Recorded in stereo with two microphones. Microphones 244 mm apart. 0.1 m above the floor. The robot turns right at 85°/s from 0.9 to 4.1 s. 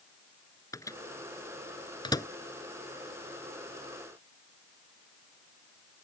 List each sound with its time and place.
0.7 s a microwave: 15° left (ahead or behind); by 2.3 s 10° left (ahead or behind)